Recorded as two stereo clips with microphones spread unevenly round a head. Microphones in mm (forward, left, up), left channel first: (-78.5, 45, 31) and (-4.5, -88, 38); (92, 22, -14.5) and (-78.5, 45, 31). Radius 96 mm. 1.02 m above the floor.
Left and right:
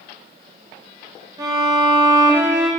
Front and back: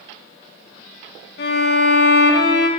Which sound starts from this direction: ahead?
A violin, at 1.4 s.